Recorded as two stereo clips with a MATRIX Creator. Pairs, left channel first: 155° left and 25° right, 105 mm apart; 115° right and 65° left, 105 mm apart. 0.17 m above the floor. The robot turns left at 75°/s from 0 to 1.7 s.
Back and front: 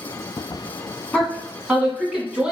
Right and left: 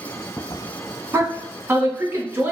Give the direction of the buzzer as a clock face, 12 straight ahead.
No buzzer in this recording.